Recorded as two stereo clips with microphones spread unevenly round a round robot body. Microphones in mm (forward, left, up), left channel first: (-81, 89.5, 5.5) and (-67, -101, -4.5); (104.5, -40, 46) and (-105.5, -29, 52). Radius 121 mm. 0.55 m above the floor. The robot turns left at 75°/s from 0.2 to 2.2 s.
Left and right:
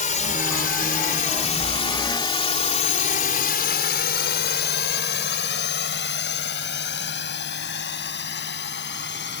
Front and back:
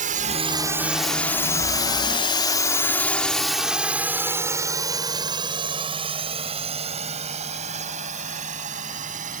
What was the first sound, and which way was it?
A drone, 130° left.